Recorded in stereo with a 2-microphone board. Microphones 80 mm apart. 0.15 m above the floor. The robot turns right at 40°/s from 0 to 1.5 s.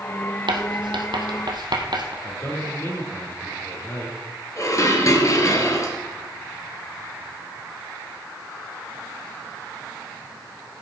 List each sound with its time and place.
0.5 s writing: 70° right (ahead or behind), 2.0 m; by 2.1 s 65° right (ahead or behind), 2.0 m
2.2 s a man speaking: 30° left (ahead or behind), 4 m
4.6 s dishes clattering: 40° left (ahead or behind), 2 m